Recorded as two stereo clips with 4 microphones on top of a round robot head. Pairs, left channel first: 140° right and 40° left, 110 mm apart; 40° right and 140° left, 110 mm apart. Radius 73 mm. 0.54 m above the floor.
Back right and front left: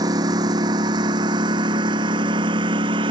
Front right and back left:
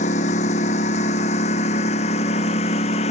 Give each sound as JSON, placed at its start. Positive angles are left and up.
{"t": 0.0, "sound": "a lawn mower", "azimuth_deg": -15}